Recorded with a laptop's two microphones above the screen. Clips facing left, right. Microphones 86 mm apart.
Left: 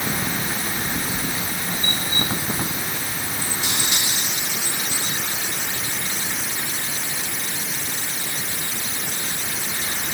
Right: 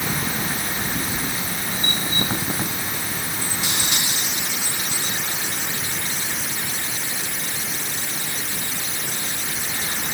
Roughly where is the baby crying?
I don't hear a baby crying.